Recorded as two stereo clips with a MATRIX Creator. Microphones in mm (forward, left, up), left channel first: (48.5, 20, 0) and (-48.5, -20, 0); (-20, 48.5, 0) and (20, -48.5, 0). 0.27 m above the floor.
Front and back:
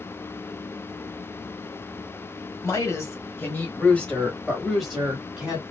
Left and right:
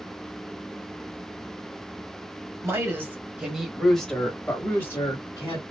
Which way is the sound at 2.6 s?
20° right.